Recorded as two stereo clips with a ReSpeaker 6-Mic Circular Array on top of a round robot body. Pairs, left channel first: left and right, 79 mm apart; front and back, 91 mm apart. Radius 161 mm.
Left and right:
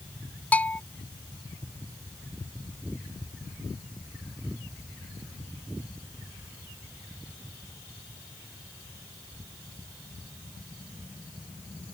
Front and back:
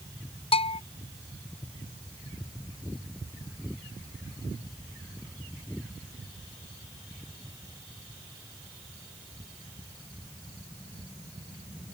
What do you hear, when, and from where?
0.5 s a bell: 20° left